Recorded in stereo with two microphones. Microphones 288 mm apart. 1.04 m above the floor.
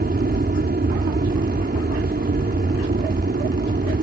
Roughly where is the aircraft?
Right.